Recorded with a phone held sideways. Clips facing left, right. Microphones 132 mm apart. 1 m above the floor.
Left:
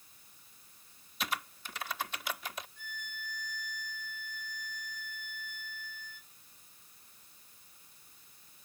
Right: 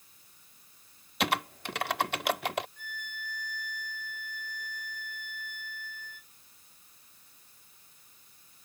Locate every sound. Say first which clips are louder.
1.2 s typing on a keyboard: right 8 dB; 70° right (ahead or behind)
2.8 s a violin: right 3 dB; 60° right (ahead or behind)